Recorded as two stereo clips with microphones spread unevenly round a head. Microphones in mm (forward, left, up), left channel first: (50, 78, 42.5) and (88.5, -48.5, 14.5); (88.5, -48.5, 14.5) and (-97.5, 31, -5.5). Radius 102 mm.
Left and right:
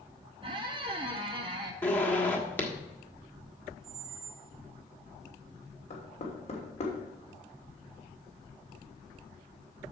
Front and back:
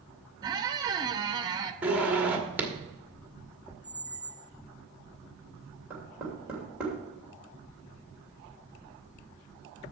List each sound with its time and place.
0.4 s a squeak: 135° right, 0.7 m
1.8 s a zipper: 70° left, 1.3 m
3.8 s a squeak: 55° right, 0.9 m
5.9 s knocking: 70° left, 3 m